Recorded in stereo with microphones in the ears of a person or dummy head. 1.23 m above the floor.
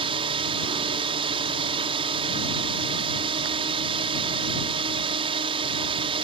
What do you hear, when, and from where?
0.0 s a drone: 30° right (ahead or behind)